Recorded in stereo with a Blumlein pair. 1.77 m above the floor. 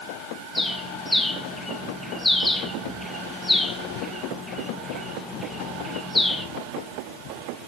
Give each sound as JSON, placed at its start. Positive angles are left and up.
{"t": 0.6, "sound": "a bird", "azimuth_deg": 5, "distance_m": 1.5}